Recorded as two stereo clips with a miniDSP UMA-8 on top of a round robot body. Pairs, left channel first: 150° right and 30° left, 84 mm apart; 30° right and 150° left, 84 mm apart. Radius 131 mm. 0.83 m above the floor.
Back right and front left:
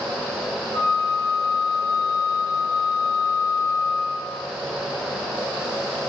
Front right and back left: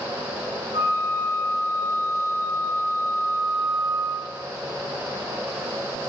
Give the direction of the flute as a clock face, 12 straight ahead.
6 o'clock.